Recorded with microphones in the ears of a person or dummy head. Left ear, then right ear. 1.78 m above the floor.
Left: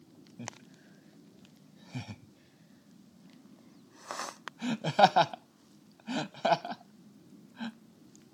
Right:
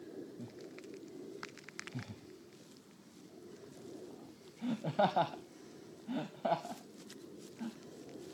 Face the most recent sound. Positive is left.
turn(degrees=70)  # may be behind; listen again after turning